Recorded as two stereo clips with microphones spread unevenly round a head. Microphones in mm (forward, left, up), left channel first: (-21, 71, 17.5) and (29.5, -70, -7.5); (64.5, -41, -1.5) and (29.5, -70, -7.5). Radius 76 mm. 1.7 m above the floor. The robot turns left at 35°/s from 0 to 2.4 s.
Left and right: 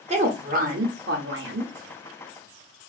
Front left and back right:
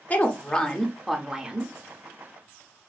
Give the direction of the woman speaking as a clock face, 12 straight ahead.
1 o'clock.